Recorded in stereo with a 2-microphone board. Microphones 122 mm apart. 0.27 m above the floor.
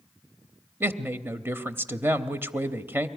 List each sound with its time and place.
0.8 s a woman speaking: 20° right (ahead or behind), 0.9 m